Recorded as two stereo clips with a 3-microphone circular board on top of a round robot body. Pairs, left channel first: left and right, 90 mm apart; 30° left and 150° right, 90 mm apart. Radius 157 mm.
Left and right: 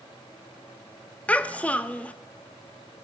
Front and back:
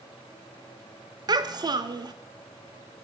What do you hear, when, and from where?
1.3 s a child speaking: 165° left, 1.0 m